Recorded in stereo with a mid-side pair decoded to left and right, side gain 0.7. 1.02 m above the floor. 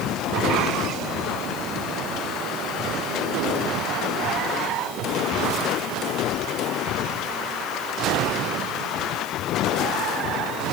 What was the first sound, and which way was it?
Only background noise.